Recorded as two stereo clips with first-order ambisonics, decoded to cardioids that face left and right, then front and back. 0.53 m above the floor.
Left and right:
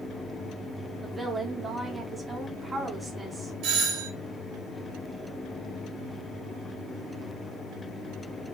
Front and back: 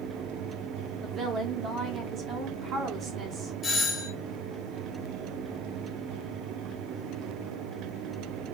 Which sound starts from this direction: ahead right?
A doorbell, at 3.6 s.